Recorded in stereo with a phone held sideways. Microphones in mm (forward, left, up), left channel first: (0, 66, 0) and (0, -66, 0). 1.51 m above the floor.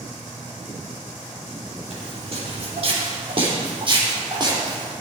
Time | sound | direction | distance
1.9 | footsteps | 55° right (ahead or behind) | 4.5 m